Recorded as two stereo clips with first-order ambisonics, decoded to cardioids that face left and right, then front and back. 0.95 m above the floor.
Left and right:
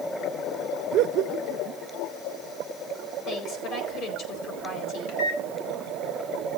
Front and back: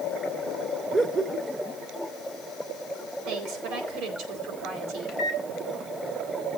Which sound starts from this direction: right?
Laughter, at 0.9 s.